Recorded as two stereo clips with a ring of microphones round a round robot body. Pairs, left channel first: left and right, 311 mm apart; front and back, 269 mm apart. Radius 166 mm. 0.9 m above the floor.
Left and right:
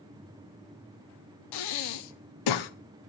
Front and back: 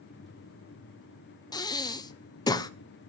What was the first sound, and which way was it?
Breathing, 75° left.